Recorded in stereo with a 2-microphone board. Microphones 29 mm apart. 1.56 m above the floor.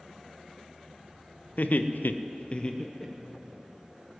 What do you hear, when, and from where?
1.6 s laughter: 60° left (ahead or behind), 0.8 m; by 3.5 s 5° left (ahead or behind), 1.3 m